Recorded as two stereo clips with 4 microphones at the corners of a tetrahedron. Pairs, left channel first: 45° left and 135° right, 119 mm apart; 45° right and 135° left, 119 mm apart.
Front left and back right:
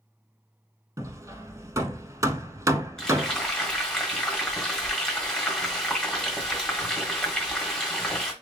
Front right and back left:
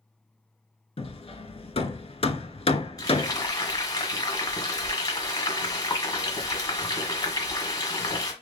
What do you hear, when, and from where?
1.0 s hammering: 75° right, 0.6 m
3.0 s frying: 35° right, 1.5 m